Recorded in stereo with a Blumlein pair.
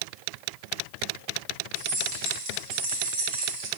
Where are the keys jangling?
45° right, 2 m.